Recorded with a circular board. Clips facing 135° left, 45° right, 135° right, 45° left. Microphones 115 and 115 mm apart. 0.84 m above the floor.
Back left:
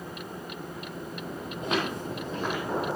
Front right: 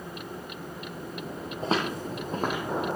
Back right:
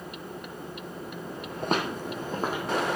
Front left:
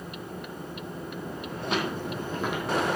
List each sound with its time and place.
1.6 s footsteps: 100° right, 1.8 m; by 3.0 s 80° right, 2.5 m